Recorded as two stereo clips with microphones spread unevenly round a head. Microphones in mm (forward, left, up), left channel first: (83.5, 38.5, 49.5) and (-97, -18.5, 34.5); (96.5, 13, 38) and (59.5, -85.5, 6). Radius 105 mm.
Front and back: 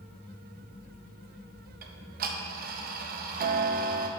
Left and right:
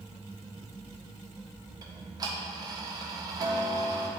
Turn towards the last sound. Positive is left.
turn(degrees=-140)